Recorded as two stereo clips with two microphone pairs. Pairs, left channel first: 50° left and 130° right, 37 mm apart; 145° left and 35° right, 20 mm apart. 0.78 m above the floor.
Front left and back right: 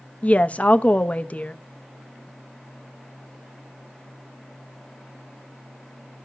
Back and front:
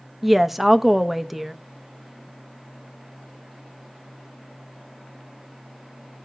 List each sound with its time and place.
0.2 s a woman speaking: 50° left, 0.7 m